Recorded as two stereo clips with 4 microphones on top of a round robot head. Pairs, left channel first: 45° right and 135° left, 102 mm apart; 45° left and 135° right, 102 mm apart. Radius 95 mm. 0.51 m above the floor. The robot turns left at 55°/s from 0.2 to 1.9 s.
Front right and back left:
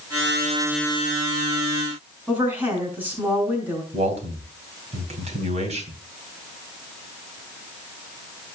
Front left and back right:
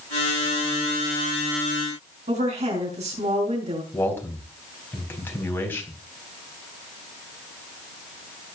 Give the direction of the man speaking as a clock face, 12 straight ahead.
8 o'clock.